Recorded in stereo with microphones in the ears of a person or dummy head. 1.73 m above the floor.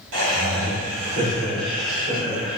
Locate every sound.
0.1 s laughter: 85° right, 1.7 m; by 2.6 s 25° right (ahead or behind), 1.6 m